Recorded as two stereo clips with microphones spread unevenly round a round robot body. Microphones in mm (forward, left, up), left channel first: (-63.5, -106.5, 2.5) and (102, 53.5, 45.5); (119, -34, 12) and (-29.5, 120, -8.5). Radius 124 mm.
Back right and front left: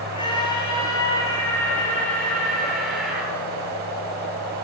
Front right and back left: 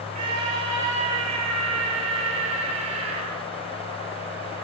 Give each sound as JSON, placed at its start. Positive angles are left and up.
{"t": 0.1, "sound": "a scream", "azimuth_deg": 155, "distance_m": 9.0}